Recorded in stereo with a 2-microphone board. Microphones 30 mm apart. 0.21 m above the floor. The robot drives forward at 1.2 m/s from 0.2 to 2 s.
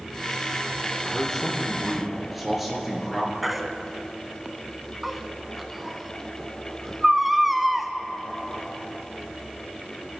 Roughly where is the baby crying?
Centre.